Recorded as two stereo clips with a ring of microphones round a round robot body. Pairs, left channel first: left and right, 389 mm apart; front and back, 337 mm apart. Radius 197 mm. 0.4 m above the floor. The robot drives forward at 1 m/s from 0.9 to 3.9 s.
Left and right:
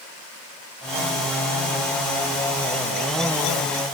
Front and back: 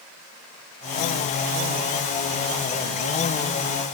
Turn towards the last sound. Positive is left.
No sound to turn to.